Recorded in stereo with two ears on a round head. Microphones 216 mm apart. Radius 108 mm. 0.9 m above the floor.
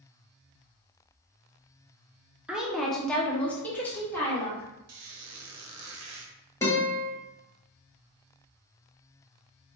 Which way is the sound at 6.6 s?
10° left (ahead or behind).